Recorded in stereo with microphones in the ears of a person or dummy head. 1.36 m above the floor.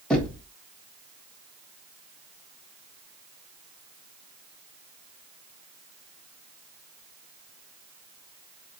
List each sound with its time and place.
0.1 s knocking: centre (ahead or behind), 1.6 m